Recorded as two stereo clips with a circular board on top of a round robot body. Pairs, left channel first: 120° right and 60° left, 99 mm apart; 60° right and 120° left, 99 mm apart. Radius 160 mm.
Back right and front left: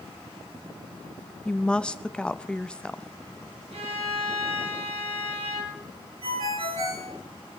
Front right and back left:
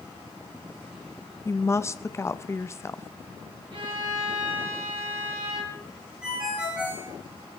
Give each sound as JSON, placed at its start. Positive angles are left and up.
{"t": 1.4, "sound": "a woman speaking", "azimuth_deg": -50, "distance_m": 0.6}
{"t": 3.7, "sound": "a violin", "azimuth_deg": 85, "distance_m": 2.5}
{"t": 6.2, "sound": "a ringtone", "azimuth_deg": 40, "distance_m": 5.0}